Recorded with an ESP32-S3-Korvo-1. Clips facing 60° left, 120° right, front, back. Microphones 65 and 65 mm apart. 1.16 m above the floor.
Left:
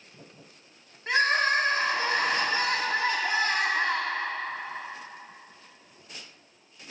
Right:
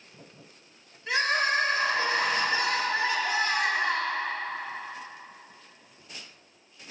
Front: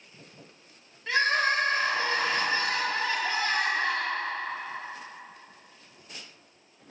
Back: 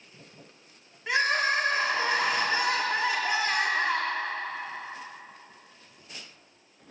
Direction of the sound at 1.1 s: 105° left.